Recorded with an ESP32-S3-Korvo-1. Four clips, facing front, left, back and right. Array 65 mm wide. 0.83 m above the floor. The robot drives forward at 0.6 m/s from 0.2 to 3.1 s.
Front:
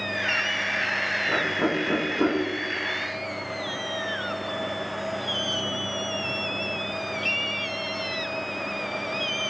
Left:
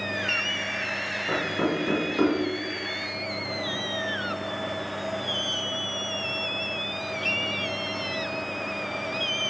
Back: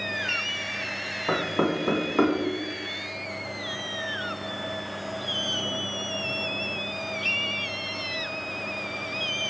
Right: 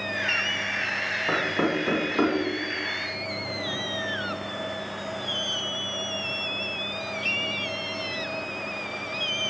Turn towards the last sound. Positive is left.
turn(degrees=-160)